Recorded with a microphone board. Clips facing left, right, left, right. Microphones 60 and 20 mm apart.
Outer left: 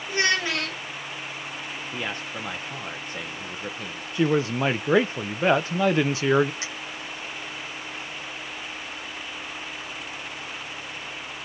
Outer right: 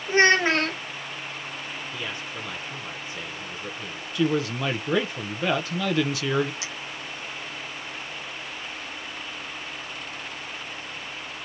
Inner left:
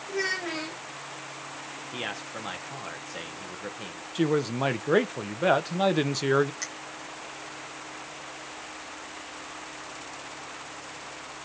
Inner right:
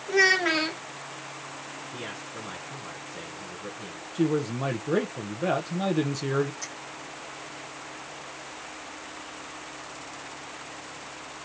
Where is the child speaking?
40° right (ahead or behind), 0.5 m.